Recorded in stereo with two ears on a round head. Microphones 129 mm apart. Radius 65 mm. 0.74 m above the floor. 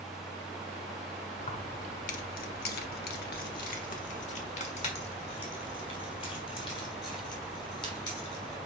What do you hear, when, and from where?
1.4 s keys jangling: 45° left (ahead or behind), 1.0 m; by 8.6 s 30° left (ahead or behind), 3.5 m